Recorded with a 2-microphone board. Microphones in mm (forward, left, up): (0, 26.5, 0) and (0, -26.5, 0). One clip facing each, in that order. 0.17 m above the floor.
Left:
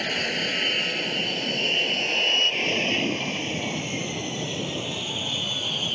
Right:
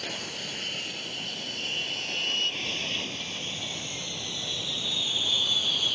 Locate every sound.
0.0 s an aircraft: 60° left (ahead or behind); by 6.0 s 35° left (ahead or behind)